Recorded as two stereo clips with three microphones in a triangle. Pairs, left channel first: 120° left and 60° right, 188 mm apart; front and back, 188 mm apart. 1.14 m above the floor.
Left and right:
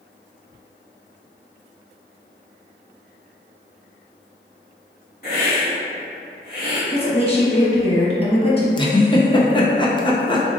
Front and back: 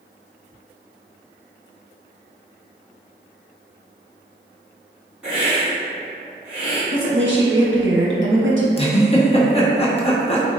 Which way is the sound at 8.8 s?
55° left.